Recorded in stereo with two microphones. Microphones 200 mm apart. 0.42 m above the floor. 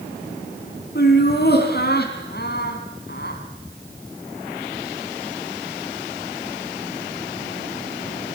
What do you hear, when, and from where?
0.9 s laughter: 55° left (ahead or behind), 3 m